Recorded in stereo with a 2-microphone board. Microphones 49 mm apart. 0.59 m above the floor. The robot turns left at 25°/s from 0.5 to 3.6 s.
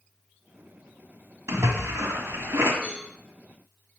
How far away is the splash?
About 1.6 m.